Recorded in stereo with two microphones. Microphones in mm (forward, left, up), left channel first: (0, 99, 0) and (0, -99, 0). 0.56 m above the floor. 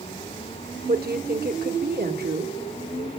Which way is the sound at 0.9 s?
55° right (ahead or behind).